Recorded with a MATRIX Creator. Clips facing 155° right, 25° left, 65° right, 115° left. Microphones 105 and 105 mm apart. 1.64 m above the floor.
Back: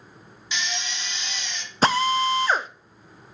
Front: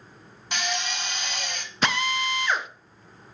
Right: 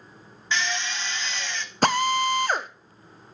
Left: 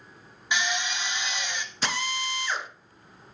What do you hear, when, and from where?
0.5 s a drill: 40° left, 1.0 m
1.8 s a drill: 105° right, 0.5 m